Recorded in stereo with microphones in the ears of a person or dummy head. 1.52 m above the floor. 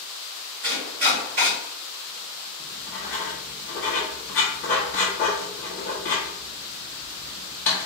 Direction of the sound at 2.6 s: 5° left (ahead or behind).